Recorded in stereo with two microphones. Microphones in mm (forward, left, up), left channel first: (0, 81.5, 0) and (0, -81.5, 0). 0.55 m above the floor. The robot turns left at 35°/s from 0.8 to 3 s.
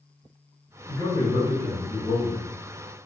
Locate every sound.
0.9 s a man speaking: 150° left, 1.5 m; by 2.4 s 95° left, 1.5 m